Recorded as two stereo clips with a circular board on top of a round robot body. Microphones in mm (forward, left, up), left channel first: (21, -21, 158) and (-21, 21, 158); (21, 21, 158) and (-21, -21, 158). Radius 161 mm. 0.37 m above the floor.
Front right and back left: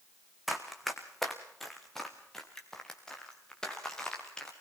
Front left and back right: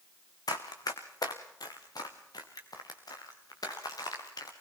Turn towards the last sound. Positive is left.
turn(degrees=35)